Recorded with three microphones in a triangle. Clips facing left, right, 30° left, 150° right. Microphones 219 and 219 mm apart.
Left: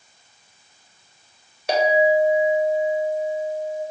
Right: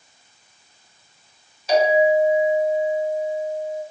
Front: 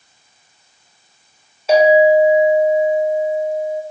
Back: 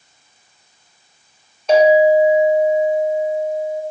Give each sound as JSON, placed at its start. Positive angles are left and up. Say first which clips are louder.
{"t": 1.7, "sound": "a clink", "louder": "right 1 dB, even", "azimuth_deg": 115, "distance_m": 1.1}